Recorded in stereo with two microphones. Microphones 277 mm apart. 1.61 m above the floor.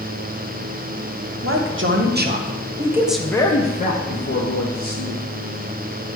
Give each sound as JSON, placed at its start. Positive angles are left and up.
{"t": 1.4, "sound": "a man speaking", "side_deg": -50, "distance_m": 1.2}